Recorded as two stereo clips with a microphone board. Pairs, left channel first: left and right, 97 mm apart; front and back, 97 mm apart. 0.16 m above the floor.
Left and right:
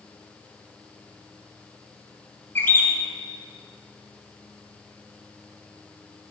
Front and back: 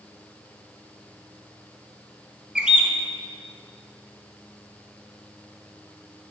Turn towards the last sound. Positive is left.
turn(degrees=115)